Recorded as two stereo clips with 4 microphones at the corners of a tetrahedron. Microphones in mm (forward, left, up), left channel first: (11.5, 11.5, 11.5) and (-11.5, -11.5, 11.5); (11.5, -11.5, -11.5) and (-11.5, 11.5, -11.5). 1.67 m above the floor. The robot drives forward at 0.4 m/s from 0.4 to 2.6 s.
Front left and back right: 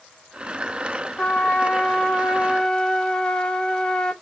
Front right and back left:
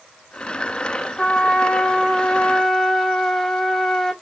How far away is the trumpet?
About 1.1 m.